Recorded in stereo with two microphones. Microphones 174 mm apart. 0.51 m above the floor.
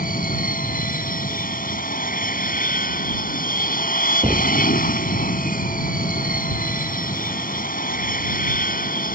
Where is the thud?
35° right (ahead or behind).